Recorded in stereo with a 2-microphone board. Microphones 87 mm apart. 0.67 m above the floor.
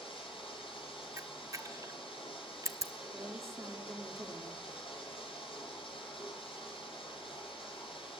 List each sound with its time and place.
0.0 s running water: 85° left, 9 m
1.2 s a camera shutter: 35° right (ahead or behind), 0.8 m
3.1 s a woman speaking: 35° right (ahead or behind), 1.8 m